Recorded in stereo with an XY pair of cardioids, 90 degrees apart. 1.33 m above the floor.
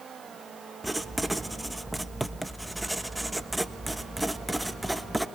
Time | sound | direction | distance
0.8 | writing | 5° right | 1.3 m